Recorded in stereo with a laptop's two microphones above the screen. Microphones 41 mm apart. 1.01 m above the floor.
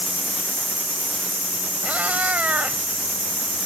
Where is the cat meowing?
40° right (ahead or behind).